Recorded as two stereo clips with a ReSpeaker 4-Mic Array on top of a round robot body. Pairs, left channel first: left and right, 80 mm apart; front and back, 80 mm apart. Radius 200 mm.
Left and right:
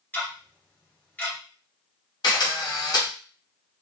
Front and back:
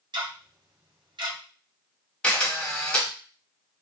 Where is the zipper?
I don't hear a zipper.